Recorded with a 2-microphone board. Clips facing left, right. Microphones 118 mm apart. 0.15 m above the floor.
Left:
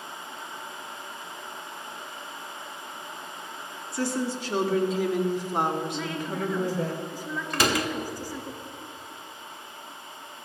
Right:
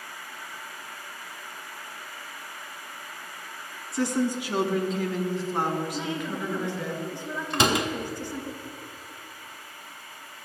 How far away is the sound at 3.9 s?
About 1.2 m.